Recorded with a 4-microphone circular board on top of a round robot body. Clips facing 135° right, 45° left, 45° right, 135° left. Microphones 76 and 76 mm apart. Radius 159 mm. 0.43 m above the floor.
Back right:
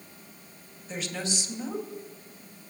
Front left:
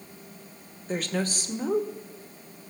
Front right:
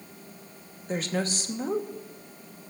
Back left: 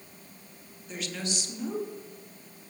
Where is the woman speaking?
5° left, 2.5 m.